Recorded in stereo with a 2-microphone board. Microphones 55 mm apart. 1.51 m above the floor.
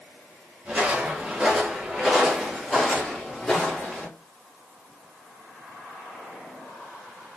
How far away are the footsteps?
About 1.6 m.